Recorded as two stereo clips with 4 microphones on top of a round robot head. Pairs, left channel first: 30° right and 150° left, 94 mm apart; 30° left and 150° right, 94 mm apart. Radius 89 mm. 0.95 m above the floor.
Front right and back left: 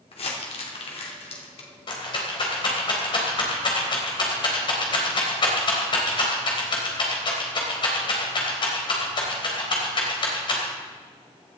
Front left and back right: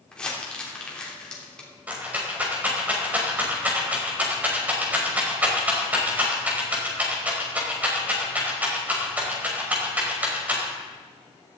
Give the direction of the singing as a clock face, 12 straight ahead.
No singing in this recording.